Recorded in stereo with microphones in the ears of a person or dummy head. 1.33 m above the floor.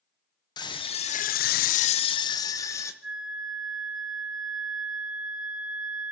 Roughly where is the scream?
Left.